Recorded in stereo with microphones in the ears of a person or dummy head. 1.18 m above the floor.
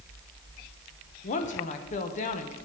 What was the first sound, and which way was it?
A woman speaking, 40° left (ahead or behind).